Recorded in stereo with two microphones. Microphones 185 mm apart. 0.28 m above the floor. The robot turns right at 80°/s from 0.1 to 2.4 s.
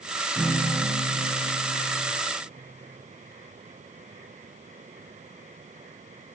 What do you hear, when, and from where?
0.3 s a guitar: 170° left, 4 m; by 2.1 s 50° right, 4 m